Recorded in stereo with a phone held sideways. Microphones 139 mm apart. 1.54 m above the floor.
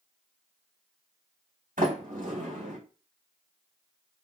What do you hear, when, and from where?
1.8 s a sliding door: 70° right (ahead or behind), 2.5 m